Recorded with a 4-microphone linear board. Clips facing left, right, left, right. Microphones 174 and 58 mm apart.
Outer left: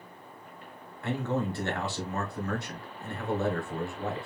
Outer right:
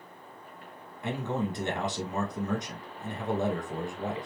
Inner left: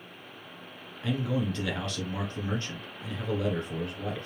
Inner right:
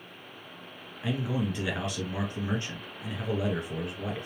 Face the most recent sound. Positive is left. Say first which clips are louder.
# outer left 1 dB, inner left 1 dB
turn(degrees=-15)  # may be behind; listen again after turning